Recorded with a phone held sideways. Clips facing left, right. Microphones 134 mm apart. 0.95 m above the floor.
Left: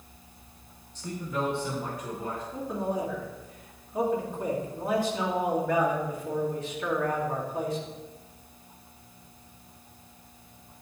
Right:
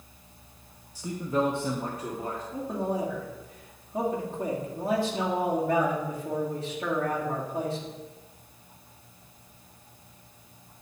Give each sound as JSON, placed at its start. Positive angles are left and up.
{"t": 0.9, "sound": "a man speaking", "side_deg": -10, "distance_m": 0.7}
{"t": 2.5, "sound": "a man speaking", "side_deg": -30, "distance_m": 2.0}